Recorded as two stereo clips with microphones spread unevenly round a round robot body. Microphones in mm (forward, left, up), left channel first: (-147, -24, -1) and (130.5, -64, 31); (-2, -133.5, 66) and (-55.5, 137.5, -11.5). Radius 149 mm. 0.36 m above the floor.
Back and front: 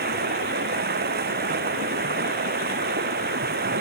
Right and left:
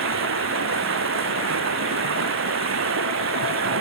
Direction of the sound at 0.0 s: 55° left.